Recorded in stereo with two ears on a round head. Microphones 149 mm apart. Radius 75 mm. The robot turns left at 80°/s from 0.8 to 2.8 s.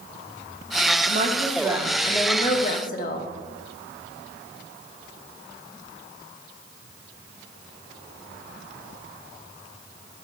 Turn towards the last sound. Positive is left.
turn(degrees=110)